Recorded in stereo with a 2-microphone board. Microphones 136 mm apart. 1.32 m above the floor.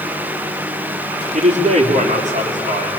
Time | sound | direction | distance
1.3 | a man speaking | 60° right (ahead or behind) | 3.5 m